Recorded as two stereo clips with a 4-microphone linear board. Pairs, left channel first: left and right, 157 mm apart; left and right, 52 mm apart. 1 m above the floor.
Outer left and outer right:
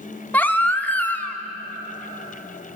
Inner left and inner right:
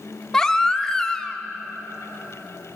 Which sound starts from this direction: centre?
A baby crying, at 0.3 s.